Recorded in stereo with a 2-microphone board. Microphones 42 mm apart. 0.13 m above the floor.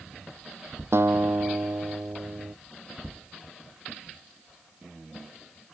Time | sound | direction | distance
0.9 | a guitar | 75° right (ahead or behind) | ?